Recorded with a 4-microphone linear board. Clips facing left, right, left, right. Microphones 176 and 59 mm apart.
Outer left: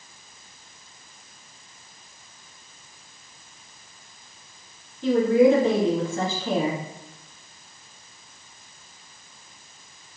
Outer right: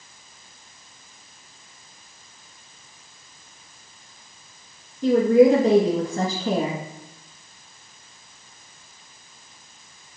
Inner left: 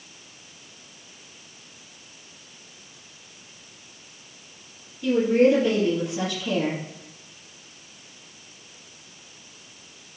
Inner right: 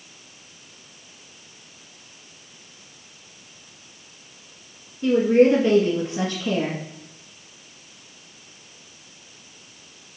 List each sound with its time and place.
5.0 s a woman speaking: 45° right (ahead or behind), 1.9 m